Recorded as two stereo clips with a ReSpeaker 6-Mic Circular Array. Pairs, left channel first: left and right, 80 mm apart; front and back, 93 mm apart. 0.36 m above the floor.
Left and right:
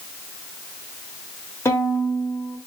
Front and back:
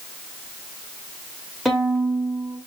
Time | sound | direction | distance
1.6 | a violin | 85° left | 1.2 m